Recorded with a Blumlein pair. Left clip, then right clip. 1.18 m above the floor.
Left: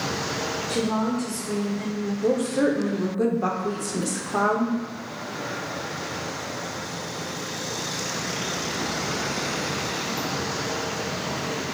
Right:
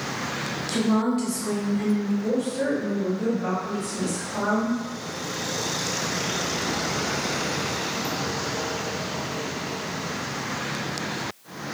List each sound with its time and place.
0.7 s a woman speaking: 65° right, 0.8 m; by 2.1 s 5° right, 0.8 m
2.2 s a woman speaking: 55° left, 0.6 m